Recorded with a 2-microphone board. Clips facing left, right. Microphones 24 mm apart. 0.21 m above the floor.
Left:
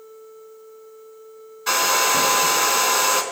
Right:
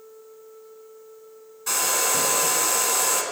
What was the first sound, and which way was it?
A hair dryer, 30° left (ahead or behind).